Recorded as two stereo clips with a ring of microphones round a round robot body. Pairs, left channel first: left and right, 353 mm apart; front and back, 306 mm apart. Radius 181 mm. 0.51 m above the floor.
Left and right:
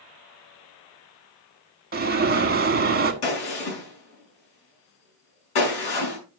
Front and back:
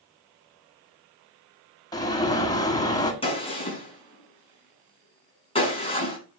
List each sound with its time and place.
1.9 s an alarm: 65° right, 1.7 m
3.2 s a gunshot: 70° left, 5.5 m